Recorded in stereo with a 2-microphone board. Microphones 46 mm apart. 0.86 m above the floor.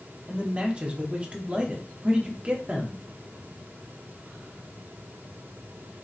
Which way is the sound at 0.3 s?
25° right (ahead or behind).